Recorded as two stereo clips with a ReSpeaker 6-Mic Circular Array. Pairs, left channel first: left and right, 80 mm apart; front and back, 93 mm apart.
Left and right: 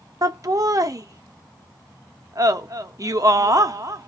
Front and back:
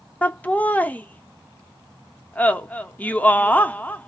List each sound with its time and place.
0.2 s laughter: 70° right, 0.6 m